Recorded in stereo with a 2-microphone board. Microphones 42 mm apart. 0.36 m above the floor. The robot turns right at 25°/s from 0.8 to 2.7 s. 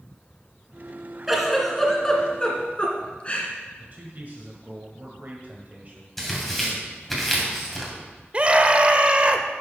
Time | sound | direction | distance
1.3 | a giggle | 5° right (ahead or behind) | 2.0 m
3.8 | a man speaking | 40° right (ahead or behind) | 1.4 m
6.2 | tearing paper | 5° left (ahead or behind) | 2.5 m
8.3 | a scream | 30° right (ahead or behind) | 0.9 m